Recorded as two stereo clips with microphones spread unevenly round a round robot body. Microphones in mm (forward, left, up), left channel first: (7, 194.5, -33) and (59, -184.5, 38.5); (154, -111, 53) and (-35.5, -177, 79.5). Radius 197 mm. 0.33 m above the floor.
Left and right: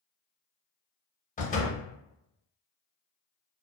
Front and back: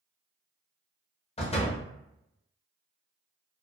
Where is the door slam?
50° left, 0.6 m.